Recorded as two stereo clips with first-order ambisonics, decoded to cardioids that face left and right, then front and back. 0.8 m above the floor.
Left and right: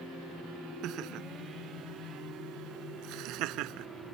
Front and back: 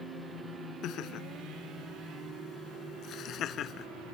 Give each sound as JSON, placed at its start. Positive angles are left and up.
{"t": 0.8, "sound": "laughter", "azimuth_deg": -45}